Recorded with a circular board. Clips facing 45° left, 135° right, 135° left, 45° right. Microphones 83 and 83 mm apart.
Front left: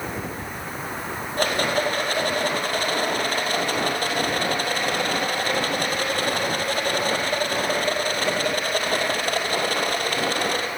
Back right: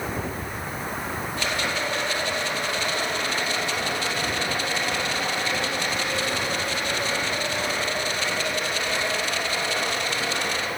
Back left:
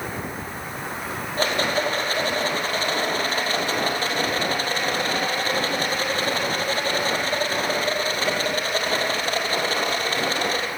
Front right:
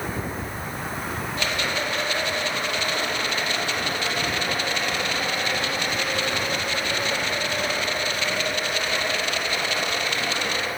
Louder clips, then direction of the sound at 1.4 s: Front left 7 dB, back left 6 dB; 85° left.